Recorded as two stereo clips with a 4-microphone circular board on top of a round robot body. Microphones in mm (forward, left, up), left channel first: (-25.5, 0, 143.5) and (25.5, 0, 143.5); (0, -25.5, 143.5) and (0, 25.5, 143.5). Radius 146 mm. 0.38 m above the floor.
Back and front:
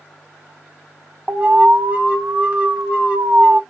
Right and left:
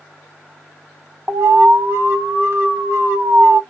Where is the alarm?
60° left, 1.0 m.